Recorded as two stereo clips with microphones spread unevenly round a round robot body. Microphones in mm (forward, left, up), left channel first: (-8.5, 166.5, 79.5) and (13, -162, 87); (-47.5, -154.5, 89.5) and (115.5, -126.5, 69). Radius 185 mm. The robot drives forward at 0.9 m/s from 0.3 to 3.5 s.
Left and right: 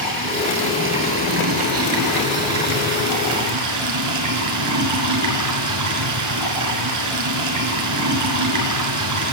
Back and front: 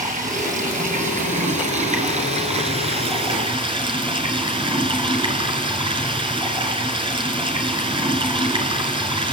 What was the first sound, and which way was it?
Running water, 30° right.